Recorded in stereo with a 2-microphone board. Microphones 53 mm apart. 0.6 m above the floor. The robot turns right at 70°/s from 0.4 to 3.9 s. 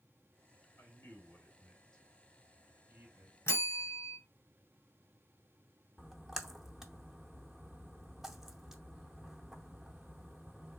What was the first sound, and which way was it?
A man speaking, 50° left (ahead or behind).